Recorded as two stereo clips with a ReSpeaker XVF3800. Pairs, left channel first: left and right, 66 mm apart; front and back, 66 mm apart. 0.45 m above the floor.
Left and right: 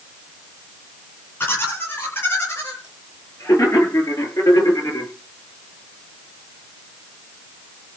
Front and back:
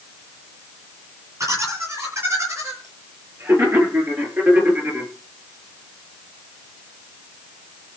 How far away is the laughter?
About 9.5 m.